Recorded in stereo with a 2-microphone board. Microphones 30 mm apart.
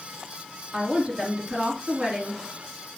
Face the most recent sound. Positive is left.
turn(degrees=-30)  # may be behind; listen again after turning